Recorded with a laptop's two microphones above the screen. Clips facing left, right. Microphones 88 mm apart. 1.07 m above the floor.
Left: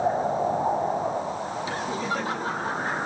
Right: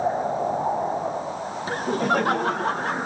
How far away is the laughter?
About 0.9 m.